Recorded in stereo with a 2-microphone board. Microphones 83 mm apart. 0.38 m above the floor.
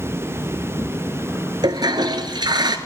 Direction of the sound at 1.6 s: 60° right (ahead or behind).